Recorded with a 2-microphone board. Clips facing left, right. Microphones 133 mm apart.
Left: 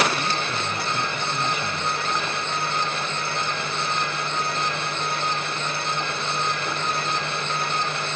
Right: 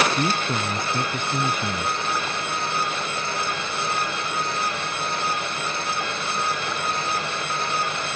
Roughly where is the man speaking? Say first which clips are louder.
Right 3 dB; right.